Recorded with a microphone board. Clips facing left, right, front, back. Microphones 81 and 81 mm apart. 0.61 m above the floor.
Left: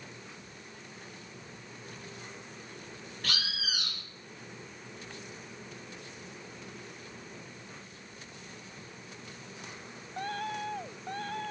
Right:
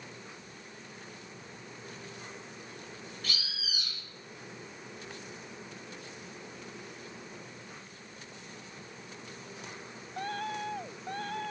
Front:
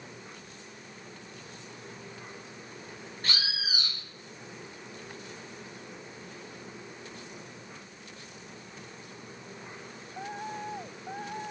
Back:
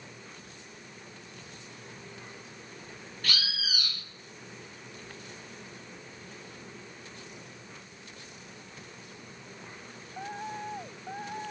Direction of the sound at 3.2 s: 60° left.